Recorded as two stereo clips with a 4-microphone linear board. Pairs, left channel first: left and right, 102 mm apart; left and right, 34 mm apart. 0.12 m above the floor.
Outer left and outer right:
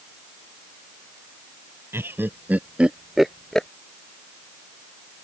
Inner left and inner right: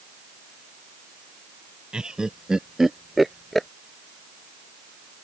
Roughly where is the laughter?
Right.